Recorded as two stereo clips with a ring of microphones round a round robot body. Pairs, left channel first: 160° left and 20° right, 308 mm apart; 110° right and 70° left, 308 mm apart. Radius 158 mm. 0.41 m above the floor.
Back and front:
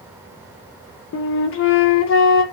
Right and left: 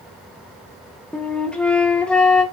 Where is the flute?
165° left, 0.7 m.